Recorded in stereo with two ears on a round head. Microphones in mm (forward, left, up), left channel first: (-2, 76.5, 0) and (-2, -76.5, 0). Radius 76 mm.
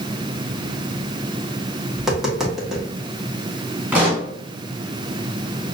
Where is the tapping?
5° right (ahead or behind), 1.2 m.